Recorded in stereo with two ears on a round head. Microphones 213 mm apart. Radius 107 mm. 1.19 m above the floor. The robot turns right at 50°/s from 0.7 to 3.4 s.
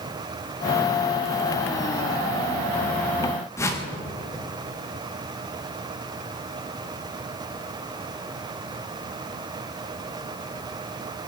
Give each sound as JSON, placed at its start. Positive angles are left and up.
{"t": 3.6, "sound": "a whoosh", "side_deg": 10, "distance_m": 1.4}